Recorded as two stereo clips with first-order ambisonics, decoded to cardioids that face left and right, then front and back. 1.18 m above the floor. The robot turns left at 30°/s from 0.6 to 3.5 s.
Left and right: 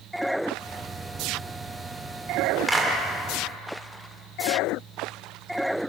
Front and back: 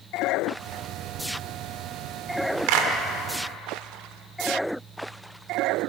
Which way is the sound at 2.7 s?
Straight behind.